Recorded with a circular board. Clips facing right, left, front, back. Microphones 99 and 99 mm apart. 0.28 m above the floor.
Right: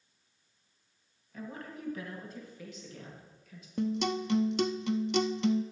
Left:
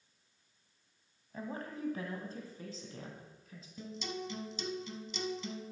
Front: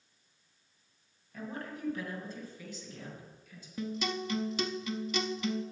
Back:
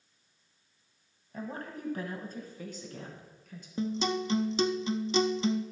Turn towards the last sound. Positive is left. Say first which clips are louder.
# right 11 dB, back 5 dB
turn(degrees=-115)